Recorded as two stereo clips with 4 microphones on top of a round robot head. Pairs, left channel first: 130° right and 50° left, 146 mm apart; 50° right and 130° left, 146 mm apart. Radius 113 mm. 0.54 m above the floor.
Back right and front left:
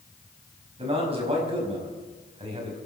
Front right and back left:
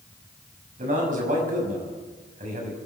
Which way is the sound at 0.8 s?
100° left.